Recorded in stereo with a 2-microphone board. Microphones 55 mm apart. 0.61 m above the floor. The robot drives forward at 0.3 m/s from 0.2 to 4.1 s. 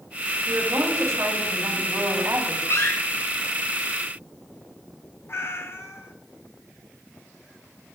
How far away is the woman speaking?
About 2.5 m.